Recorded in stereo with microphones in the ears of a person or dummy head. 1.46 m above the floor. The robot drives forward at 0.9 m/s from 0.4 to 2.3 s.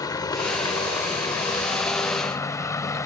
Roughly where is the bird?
I don't hear a bird.